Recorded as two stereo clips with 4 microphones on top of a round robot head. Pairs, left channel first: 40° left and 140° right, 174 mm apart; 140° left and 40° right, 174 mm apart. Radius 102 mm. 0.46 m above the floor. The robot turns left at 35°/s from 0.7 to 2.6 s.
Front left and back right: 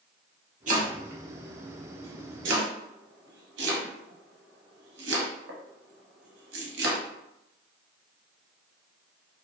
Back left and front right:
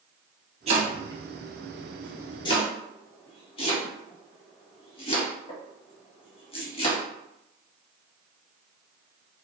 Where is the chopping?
95° right, 0.7 m; by 7.0 s 160° right, 0.7 m.